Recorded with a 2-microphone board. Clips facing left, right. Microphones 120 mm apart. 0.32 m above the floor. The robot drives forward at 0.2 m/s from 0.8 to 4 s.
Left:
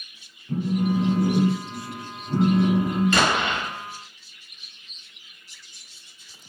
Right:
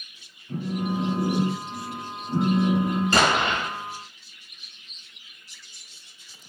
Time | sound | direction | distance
0.5 | a phone buzzing | 55° left (ahead or behind) | 0.8 m
3.1 | an explosion | 35° right (ahead or behind) | 0.6 m